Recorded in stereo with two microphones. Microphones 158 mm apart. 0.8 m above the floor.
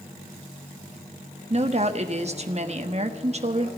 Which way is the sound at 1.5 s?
45° right (ahead or behind).